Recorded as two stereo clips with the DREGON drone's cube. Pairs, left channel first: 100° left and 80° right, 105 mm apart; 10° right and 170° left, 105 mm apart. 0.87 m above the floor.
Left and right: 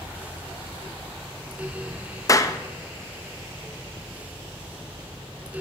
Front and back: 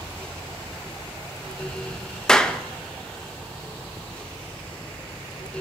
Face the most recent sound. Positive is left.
turn(degrees=70)